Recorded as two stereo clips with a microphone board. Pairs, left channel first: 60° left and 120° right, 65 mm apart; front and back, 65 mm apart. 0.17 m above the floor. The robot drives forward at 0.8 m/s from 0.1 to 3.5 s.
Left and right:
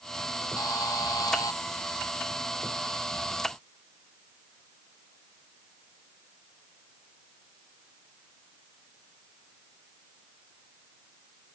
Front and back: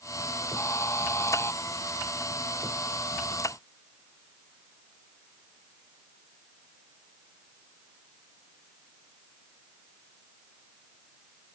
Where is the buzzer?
40° left; by 1.6 s 45° left.